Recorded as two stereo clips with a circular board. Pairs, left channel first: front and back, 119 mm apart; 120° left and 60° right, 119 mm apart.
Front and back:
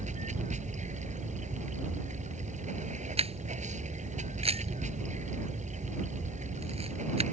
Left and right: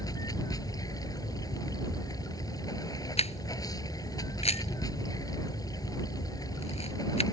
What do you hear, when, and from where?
0.0 s running water: straight behind
3.2 s a camera shutter: 145° left